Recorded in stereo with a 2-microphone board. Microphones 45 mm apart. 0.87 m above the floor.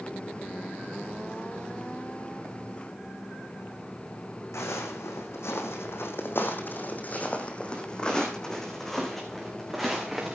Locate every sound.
4.5 s footsteps: 75° left (ahead or behind), 3 m; by 10.3 s 5° right (ahead or behind), 4.5 m